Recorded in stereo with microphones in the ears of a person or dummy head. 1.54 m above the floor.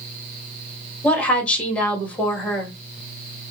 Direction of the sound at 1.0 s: 5° left (ahead or behind).